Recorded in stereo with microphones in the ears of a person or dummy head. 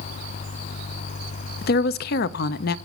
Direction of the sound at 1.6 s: 55° left (ahead or behind).